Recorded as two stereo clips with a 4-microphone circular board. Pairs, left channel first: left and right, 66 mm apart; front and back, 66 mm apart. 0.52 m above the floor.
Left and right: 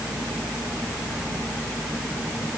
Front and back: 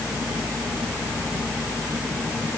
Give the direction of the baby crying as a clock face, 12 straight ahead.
No baby crying in this recording.